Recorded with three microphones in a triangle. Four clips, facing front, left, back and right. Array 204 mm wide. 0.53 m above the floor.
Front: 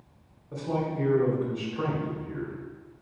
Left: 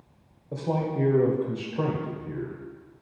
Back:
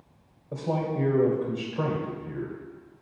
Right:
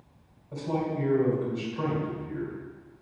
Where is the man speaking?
120° left, 1.8 m.